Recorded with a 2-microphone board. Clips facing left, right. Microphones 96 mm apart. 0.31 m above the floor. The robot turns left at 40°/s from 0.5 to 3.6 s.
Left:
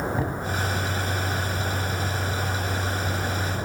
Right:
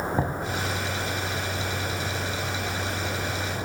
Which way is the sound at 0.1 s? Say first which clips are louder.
Right 1 dB; 25° right (ahead or behind).